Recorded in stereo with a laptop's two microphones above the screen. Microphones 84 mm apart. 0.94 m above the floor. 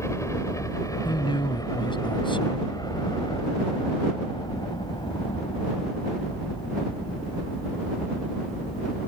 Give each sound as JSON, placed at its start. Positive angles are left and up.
{"t": 0.0, "sound": "a helicopter", "side_deg": 35}
{"t": 1.1, "sound": "a man speaking", "side_deg": 85}